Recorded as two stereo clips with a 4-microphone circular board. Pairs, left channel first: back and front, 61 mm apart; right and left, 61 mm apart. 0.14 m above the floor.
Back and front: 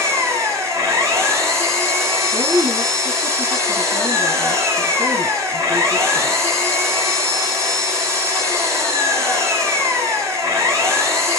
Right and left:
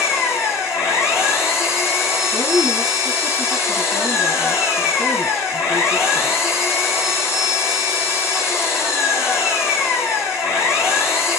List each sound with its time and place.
0.0 s an engine running: 45° right, 4 m
2.3 s a woman speaking: 25° right, 4 m